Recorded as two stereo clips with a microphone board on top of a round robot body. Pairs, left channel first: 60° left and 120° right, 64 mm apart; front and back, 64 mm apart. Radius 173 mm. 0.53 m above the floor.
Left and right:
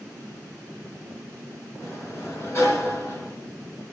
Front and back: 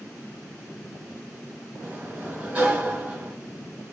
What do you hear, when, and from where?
1.8 s a sliding door: 110° left, 1.6 m